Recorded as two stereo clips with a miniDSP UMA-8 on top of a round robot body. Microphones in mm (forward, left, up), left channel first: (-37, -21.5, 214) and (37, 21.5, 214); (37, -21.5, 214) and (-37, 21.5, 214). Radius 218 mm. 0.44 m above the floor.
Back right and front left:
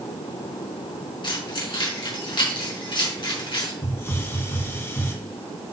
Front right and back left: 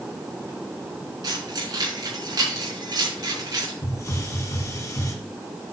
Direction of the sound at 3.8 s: 85° right.